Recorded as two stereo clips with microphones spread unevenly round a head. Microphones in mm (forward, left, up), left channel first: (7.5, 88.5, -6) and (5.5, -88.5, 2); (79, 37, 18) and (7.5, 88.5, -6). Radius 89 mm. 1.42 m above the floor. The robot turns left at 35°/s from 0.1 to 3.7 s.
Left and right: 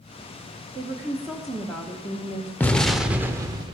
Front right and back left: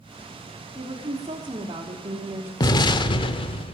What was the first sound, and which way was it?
A woman speaking, 155° right.